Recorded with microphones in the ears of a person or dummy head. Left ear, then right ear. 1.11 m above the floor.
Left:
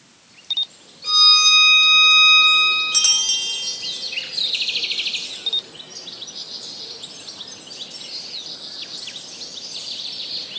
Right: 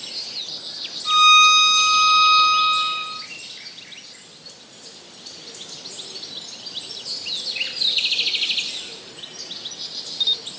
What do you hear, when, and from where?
1.0 s a violin: 45° left (ahead or behind), 1.3 m